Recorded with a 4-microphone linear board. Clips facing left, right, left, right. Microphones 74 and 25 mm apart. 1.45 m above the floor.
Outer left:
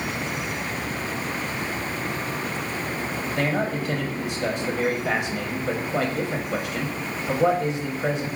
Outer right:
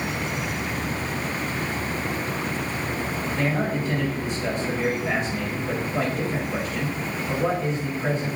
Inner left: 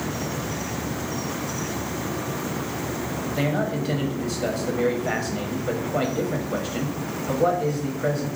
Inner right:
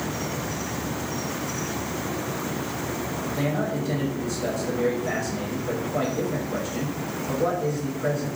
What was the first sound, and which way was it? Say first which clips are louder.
A man speaking: outer left 1 dB, inner left 2 dB; 70° left (ahead or behind).